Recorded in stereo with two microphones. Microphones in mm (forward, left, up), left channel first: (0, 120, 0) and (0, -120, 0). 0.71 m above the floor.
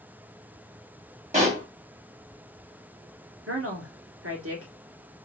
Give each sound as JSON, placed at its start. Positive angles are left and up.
{"t": 1.3, "sound": "a pop", "side_deg": -30, "distance_m": 1.7}
{"t": 3.5, "sound": "a woman speaking", "side_deg": -70, "distance_m": 1.7}